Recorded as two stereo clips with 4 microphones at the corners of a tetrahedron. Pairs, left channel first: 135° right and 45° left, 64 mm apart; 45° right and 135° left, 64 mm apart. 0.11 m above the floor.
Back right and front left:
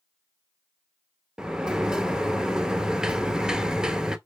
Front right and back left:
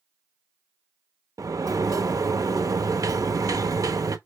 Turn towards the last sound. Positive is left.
turn(degrees=120)